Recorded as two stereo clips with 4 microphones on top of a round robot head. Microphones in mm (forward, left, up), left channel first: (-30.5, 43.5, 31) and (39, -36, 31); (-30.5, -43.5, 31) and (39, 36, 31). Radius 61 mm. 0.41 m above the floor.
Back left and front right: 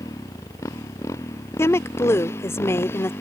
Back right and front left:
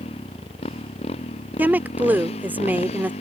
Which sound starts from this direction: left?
A woman speaking, at 1.6 s.